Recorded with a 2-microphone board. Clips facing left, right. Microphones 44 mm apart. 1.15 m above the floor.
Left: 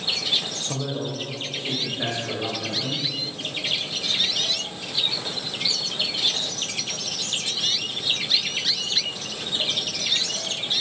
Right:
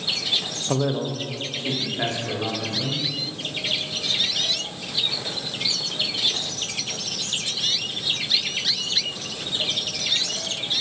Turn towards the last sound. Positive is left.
turn(degrees=-75)  # may be behind; listen again after turning